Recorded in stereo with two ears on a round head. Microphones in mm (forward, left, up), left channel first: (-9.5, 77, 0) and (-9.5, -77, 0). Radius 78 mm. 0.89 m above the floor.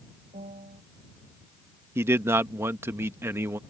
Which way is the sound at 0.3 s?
35° right (ahead or behind).